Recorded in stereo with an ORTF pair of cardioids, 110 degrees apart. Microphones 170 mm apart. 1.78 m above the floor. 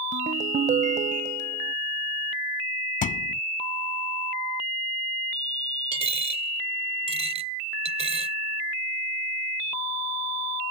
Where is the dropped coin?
40° right.